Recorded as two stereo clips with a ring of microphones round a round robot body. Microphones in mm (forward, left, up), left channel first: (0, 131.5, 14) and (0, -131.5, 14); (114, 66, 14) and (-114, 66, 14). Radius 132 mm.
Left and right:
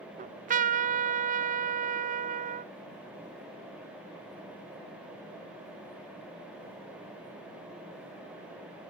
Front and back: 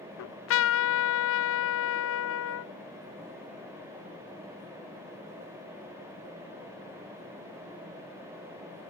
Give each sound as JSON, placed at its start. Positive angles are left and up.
{"t": 0.2, "sound": "a trumpet", "azimuth_deg": -30, "distance_m": 0.5}